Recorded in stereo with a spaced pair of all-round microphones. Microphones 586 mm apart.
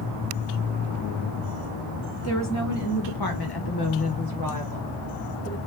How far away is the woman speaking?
About 1.1 m.